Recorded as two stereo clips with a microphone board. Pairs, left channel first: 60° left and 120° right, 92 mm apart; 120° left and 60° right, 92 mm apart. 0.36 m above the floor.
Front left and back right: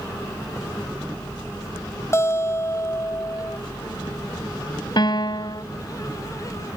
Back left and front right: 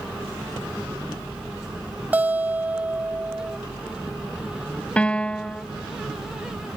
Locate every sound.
2.1 s a guitar: 10° left
5.0 s a piano: 45° left